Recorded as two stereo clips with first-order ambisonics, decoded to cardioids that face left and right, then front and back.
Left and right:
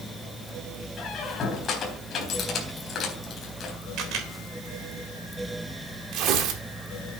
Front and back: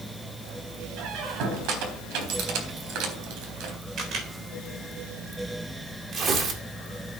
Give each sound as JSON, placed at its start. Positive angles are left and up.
{"t": 1.0, "sound": "a squeak", "azimuth_deg": 150, "distance_m": 3.5}
{"t": 4.0, "sound": "a camera shutter", "azimuth_deg": -130, "distance_m": 3.5}
{"t": 6.1, "sound": "tearing paper", "azimuth_deg": -120, "distance_m": 2.0}